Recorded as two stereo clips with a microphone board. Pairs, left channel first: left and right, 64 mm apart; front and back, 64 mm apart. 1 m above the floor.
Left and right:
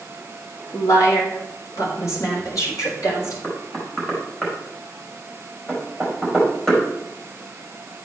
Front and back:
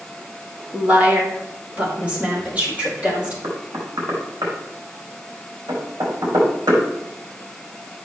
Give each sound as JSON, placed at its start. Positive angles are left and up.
{"t": 0.7, "sound": "a woman speaking", "azimuth_deg": 115, "distance_m": 2.5}
{"t": 3.4, "sound": "knocking", "azimuth_deg": 165, "distance_m": 4.5}